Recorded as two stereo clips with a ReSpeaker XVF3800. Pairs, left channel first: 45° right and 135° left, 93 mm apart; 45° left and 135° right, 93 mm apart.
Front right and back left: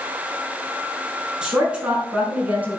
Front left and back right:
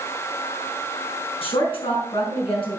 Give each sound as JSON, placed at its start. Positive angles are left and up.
{"t": 1.4, "sound": "a woman speaking", "azimuth_deg": 55, "distance_m": 4.5}